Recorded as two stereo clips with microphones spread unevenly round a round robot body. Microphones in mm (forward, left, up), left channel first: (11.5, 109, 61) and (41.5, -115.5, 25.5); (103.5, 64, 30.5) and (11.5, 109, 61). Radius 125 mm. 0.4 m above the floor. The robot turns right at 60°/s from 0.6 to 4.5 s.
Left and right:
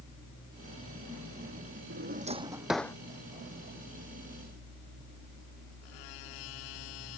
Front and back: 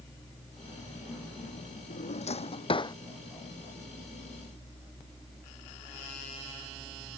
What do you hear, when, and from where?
1.9 s a drawer: 45° right; by 3.0 s 20° left